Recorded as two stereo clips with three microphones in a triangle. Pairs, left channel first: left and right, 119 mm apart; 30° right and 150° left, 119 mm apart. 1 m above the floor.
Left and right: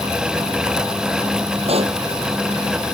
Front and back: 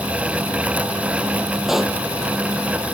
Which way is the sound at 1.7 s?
125° right.